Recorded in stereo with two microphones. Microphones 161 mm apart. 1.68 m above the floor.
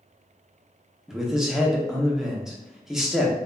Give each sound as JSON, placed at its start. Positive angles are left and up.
{"t": 1.1, "sound": "a man speaking", "side_deg": 0, "distance_m": 0.6}